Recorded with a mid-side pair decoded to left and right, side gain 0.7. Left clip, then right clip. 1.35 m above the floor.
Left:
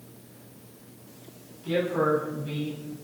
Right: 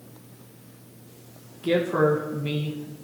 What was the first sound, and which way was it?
A man speaking, 55° right.